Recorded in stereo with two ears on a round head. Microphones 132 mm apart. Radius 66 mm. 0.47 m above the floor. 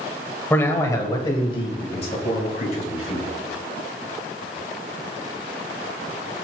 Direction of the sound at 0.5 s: 15° left (ahead or behind).